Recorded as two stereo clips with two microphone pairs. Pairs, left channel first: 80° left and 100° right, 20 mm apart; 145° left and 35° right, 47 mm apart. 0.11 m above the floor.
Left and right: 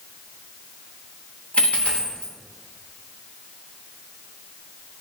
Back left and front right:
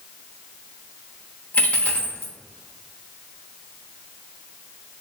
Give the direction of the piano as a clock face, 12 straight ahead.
I don't hear a piano.